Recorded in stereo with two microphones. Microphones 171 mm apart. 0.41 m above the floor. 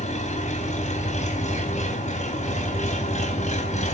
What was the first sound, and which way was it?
An engine running, 45° left (ahead or behind).